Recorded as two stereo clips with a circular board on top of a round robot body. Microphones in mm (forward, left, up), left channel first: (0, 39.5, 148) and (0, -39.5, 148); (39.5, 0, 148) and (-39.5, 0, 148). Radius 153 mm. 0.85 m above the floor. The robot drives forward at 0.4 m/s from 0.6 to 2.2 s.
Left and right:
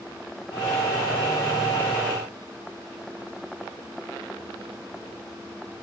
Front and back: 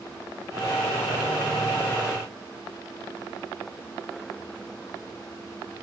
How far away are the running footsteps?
No running footsteps in this recording.